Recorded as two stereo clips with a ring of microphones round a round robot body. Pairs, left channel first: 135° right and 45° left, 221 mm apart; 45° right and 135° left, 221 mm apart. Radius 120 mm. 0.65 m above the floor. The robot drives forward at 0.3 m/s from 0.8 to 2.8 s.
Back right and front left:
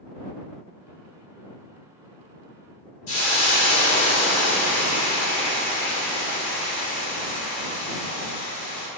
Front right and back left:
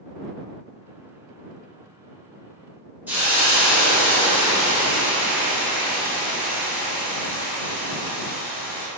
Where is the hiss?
145° right, 0.9 m.